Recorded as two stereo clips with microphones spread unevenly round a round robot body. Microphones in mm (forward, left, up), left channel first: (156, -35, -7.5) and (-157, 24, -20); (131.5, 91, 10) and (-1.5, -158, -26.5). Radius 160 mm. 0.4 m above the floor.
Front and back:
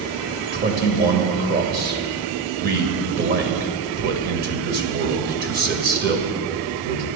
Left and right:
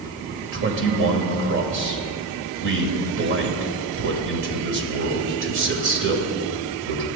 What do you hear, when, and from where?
0.5 s a man speaking: 140° right, 1.8 m